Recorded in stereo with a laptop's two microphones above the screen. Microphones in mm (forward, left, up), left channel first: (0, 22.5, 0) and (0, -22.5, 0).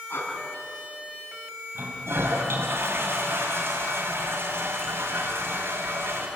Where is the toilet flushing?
65° right (ahead or behind), 6 m.